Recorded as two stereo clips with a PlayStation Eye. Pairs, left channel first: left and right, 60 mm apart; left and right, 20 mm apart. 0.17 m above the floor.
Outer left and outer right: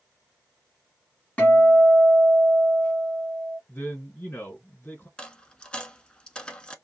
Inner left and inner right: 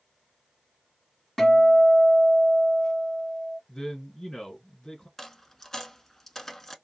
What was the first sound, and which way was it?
A guitar, 25° left (ahead or behind).